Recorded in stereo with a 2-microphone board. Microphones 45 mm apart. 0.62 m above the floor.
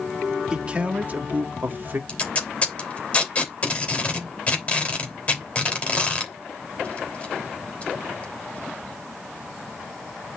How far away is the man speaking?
About 1.3 m.